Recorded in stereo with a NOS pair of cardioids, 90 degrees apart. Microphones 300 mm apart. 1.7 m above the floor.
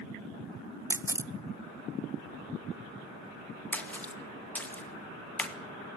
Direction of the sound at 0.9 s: 10° right.